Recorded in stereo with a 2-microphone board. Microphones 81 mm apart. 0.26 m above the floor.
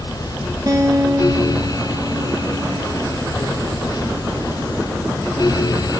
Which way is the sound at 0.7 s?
50° right (ahead or behind).